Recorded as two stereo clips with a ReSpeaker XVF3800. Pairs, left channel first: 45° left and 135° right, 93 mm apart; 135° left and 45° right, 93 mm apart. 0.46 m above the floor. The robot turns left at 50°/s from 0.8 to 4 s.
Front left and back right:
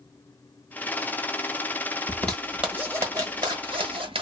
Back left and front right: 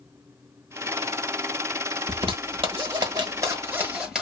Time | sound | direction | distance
2.1 | a zipper | 30° right | 1.2 m